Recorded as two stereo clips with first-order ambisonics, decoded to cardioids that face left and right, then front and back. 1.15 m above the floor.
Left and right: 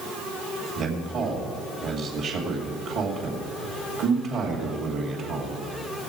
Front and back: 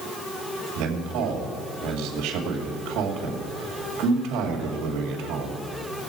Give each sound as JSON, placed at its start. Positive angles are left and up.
{"t": 0.8, "sound": "a man speaking", "azimuth_deg": -140, "distance_m": 2.5}